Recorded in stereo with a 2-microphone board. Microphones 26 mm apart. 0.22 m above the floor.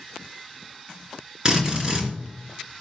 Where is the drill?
25° right (ahead or behind), 3 m.